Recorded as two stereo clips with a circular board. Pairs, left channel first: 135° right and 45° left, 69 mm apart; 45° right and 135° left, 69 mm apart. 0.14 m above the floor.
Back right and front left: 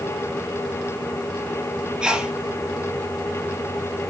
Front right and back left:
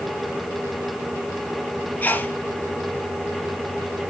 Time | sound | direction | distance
2.0 | a sneeze | 20° right | 1.4 m